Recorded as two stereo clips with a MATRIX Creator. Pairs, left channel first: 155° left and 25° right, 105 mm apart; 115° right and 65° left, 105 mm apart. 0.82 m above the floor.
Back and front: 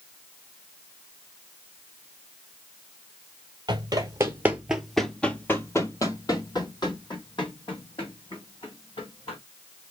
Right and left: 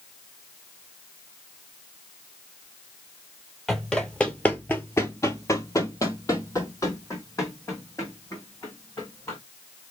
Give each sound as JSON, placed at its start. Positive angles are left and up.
{"t": 3.7, "sound": "running footsteps", "azimuth_deg": -25, "distance_m": 1.0}